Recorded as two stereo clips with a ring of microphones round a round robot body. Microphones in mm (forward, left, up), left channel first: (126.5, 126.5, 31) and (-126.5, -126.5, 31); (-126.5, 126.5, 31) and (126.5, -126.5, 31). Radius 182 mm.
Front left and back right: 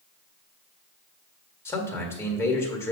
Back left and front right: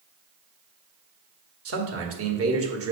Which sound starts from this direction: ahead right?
A man speaking, at 1.6 s.